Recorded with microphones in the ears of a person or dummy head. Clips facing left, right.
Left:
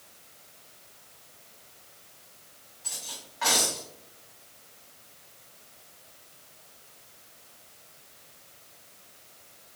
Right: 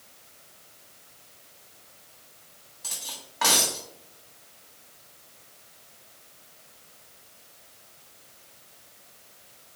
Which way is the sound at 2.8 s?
65° right (ahead or behind).